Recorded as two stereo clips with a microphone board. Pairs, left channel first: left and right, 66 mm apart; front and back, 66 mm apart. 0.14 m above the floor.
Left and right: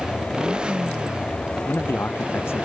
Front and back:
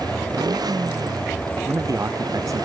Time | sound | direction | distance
0.0 | a motorcycle | 165° right | ?
1.6 | a man speaking | 145° left | ?